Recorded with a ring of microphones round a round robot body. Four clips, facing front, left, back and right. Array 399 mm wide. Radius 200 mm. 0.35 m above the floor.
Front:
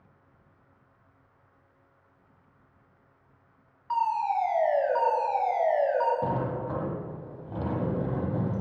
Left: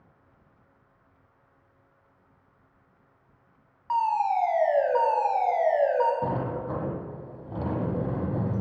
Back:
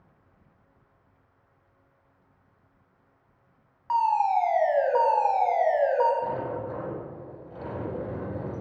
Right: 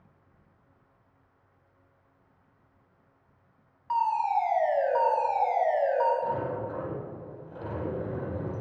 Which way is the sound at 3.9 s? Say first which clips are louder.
Left 2 dB, back 4 dB; 155° left.